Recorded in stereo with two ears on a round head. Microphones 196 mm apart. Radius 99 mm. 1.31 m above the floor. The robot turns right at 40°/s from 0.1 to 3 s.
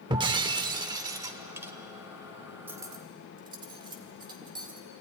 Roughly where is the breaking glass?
Right.